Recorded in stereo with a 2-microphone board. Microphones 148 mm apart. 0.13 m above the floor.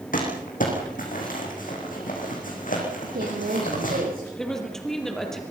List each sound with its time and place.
0.1 s crumpling: 65° left (ahead or behind), 7.5 m
3.0 s a woman speaking: 80° right, 7 m
4.4 s a woman speaking: 5° left (ahead or behind), 4.5 m